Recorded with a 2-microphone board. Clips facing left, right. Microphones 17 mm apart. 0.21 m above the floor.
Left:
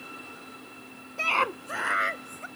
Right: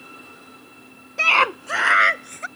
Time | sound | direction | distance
1.2 | a scream | 35° right (ahead or behind) | ?